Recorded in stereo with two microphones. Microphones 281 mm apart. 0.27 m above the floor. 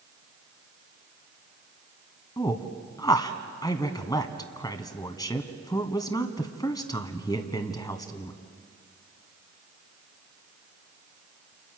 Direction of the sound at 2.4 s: 15° left (ahead or behind).